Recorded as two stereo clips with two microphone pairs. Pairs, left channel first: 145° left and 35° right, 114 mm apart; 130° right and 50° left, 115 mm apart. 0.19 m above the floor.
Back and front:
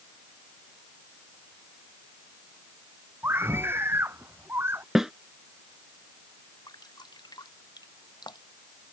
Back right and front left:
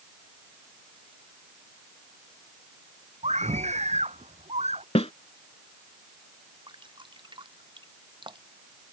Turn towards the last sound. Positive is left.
turn(degrees=95)